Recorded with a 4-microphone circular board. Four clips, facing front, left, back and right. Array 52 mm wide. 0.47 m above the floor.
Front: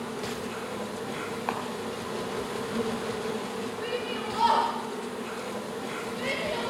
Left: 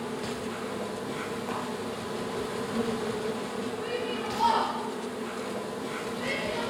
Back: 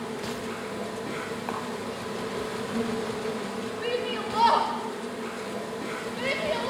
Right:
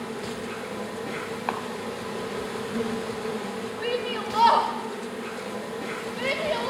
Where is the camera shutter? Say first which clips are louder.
Right 7 dB, front 2 dB; 75° right, 2.5 m.